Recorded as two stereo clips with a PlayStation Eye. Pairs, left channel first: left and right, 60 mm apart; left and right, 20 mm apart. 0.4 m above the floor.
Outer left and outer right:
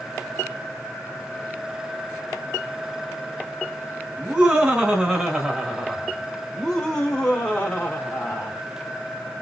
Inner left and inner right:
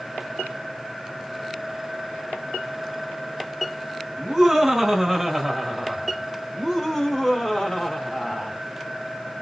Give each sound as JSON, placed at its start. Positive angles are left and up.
{"t": 4.2, "sound": "laughter", "side_deg": -20, "distance_m": 2.5}